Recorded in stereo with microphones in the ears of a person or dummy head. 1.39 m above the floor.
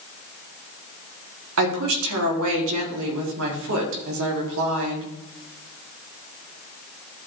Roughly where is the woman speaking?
Right.